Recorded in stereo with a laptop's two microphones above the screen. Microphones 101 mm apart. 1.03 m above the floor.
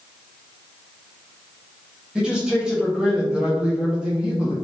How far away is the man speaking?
About 0.9 m.